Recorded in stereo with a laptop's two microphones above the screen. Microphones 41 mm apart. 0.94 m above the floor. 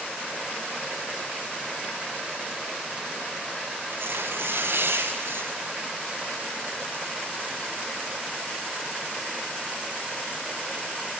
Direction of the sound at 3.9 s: 75° right (ahead or behind).